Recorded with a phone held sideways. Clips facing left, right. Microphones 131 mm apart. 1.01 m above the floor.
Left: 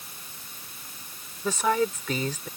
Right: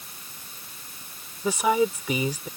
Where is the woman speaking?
10° right (ahead or behind).